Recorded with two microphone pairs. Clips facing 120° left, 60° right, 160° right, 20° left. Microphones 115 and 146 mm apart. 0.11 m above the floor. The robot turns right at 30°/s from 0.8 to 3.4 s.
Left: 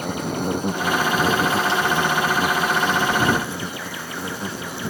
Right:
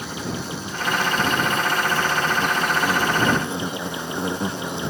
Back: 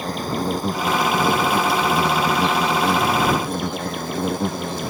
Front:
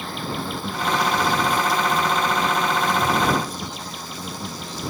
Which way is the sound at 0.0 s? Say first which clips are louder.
Left 5 dB, back 5 dB; 155° left.